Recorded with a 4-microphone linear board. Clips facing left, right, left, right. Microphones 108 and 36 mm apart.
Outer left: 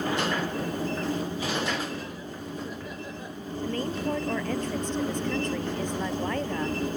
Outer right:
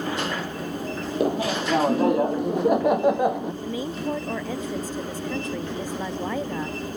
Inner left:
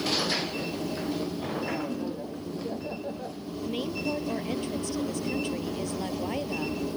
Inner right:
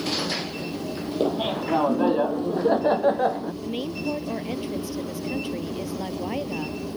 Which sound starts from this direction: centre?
A woman speaking, at 3.6 s.